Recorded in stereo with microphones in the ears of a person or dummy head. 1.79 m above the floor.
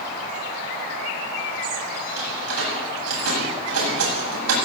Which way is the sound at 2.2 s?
85° right.